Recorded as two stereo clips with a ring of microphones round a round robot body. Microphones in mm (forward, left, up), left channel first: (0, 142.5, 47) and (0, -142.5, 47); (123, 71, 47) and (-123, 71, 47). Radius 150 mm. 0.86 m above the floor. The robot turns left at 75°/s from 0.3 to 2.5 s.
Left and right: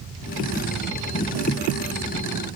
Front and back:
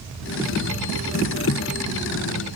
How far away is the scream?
No scream in this recording.